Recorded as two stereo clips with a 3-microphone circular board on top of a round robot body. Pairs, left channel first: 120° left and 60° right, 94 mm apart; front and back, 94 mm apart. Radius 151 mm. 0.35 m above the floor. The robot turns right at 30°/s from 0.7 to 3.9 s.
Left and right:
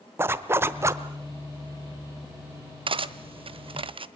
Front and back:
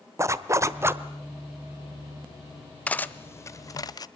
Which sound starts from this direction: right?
Cutlery clinking, at 2.9 s.